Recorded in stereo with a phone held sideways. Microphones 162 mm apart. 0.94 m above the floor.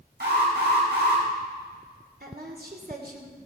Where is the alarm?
80° right, 6 m.